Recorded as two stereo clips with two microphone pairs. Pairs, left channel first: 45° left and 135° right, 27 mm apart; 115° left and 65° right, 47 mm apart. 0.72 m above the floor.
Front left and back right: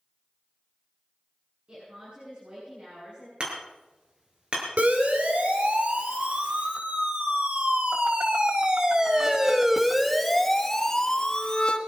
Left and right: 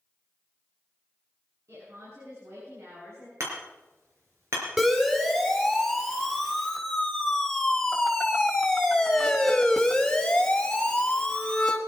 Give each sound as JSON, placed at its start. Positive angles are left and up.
{"t": 1.7, "sound": "a woman speaking", "azimuth_deg": -85, "distance_m": 7.0}
{"t": 3.4, "sound": "hammering", "azimuth_deg": -85, "distance_m": 4.5}
{"t": 4.8, "sound": "a siren", "azimuth_deg": -150, "distance_m": 4.0}